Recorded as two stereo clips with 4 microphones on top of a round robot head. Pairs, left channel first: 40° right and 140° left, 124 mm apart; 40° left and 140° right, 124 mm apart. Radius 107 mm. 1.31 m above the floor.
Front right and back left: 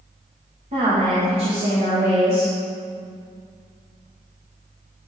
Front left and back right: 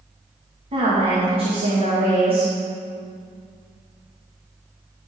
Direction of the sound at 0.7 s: 175° left.